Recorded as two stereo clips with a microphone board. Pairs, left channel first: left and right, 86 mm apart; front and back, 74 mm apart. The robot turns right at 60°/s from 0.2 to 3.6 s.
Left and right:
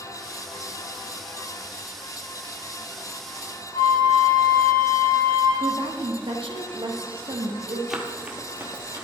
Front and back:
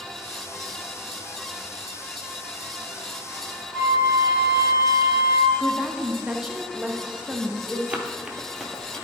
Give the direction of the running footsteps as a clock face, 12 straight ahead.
6 o'clock.